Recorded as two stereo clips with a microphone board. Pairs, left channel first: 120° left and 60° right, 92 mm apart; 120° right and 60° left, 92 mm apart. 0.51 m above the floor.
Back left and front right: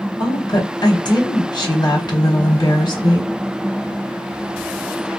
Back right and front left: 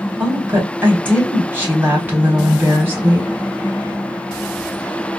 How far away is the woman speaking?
About 1.1 m.